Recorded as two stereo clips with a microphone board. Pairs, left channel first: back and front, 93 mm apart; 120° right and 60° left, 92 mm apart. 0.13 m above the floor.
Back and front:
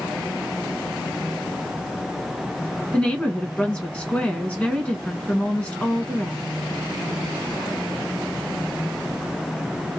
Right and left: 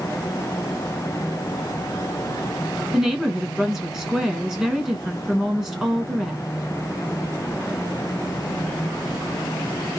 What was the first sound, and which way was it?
A woman speaking, 135° left.